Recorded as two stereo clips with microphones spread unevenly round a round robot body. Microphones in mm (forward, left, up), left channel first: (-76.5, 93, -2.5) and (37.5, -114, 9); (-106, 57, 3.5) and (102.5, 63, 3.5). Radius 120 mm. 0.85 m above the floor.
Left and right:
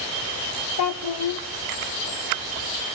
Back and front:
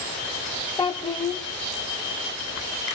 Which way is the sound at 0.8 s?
110° left.